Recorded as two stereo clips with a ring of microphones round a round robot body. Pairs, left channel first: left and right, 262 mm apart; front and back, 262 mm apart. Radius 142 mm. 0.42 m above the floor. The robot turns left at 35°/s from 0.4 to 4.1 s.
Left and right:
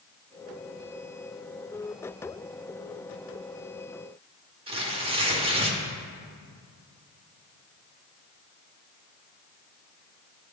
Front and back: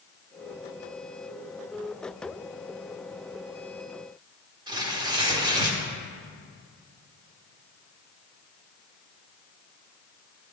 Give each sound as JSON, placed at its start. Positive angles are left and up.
{"t": 4.7, "sound": "tearing paper", "azimuth_deg": -130, "distance_m": 0.8}